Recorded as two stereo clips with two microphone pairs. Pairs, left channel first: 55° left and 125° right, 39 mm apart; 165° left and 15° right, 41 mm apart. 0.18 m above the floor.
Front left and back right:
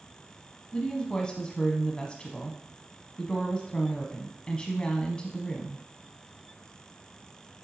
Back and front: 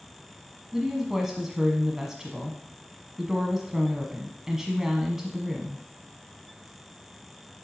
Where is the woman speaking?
45° left, 1.1 m.